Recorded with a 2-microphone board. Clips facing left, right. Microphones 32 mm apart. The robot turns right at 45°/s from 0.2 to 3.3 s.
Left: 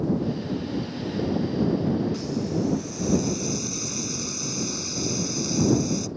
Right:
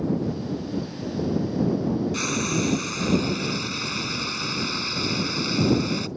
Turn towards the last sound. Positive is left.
turn(degrees=-40)